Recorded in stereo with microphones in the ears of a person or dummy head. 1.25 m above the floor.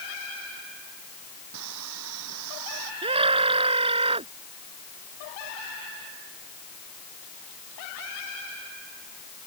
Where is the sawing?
80° right.